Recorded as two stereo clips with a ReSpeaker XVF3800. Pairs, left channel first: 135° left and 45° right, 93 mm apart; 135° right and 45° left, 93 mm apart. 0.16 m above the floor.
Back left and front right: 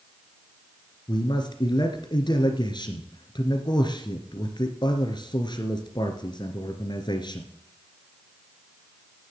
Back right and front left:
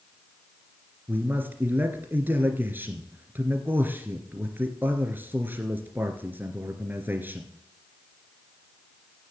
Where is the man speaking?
110° left, 2 m.